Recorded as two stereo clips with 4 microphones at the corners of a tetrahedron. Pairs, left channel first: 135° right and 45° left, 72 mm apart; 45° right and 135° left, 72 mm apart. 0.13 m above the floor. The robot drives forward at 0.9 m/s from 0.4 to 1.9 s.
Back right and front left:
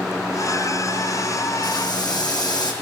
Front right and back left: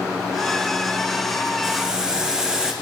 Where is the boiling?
140° right, 2.5 m; by 2.7 s 145° right, 2.5 m.